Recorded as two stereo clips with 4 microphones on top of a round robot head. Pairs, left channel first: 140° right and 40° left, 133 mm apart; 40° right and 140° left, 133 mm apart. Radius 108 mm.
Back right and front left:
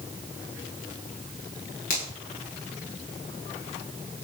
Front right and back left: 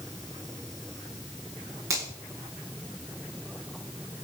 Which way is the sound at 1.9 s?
155° right.